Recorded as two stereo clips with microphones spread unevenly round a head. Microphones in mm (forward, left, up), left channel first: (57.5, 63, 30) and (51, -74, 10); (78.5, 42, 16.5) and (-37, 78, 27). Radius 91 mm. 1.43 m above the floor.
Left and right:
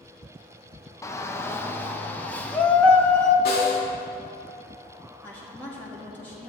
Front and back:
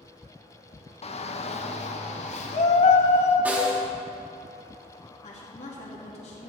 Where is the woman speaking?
10° left, 2.5 m.